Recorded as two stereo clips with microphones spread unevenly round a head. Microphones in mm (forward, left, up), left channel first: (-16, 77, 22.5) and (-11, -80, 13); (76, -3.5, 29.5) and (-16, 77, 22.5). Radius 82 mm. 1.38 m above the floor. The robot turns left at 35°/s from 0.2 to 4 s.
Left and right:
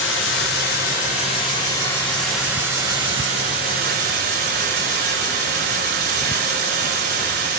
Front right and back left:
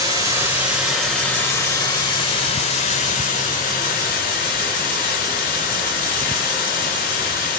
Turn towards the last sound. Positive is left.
turn(degrees=-55)